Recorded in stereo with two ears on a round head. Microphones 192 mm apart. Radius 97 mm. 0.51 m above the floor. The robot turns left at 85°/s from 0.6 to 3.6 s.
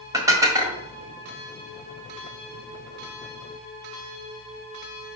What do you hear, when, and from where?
0.1 s dishes clattering: 15° right (ahead or behind), 1.7 m; by 0.8 s centre (ahead or behind), 1.7 m